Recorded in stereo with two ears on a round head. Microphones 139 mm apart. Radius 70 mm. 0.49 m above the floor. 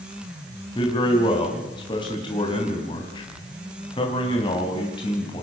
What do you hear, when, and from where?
0.8 s a man speaking: 30° left (ahead or behind), 3 m